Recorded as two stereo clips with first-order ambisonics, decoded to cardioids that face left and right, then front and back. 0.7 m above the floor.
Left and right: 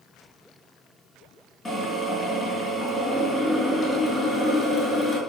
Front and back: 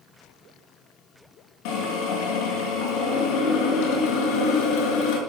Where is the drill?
15° left, 5.5 m.